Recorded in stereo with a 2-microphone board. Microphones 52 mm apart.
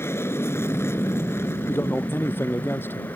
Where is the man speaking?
50° left (ahead or behind).